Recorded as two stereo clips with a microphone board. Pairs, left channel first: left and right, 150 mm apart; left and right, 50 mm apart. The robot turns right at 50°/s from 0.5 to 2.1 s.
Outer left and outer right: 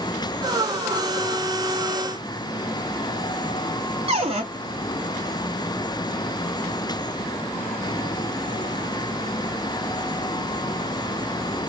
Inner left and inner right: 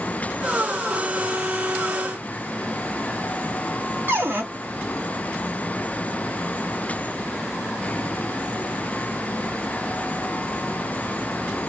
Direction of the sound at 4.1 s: 40° right (ahead or behind).